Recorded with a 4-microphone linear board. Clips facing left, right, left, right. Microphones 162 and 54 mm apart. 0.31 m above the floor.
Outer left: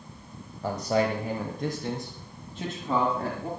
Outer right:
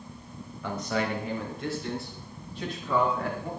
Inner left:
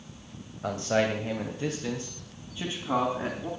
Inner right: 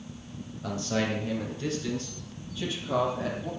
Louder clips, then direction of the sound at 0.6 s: Outer left 4 dB, inner left 3 dB; 35° left (ahead or behind).